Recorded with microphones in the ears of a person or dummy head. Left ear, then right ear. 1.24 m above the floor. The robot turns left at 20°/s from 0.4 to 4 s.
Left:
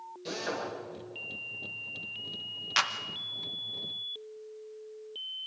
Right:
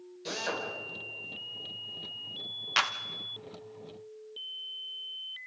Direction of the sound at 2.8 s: 10° right (ahead or behind).